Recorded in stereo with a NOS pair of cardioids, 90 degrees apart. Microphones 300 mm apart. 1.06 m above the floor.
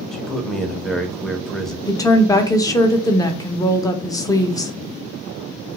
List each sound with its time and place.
0.1 s a man speaking: straight ahead, 0.6 m
1.9 s a woman speaking: 10° left, 0.6 m